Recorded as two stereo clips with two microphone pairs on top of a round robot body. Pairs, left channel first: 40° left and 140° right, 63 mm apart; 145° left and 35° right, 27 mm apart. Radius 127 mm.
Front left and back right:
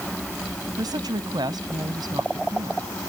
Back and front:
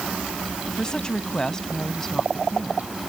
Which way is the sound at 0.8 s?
150° right.